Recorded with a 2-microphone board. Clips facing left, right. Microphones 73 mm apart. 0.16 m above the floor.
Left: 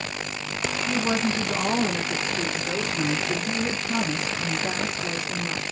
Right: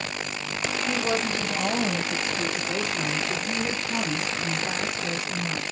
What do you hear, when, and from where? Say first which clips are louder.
0.9 s a woman speaking: left 2 dB; 20° left (ahead or behind), 1.4 m; by 5.6 s 55° left (ahead or behind), 3 m